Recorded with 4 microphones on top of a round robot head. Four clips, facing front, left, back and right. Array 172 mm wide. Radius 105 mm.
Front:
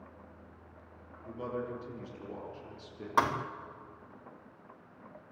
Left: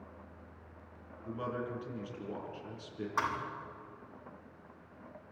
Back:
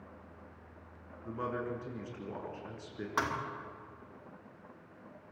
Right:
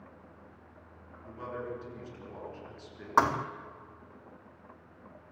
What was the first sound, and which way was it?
A man speaking, 155° left.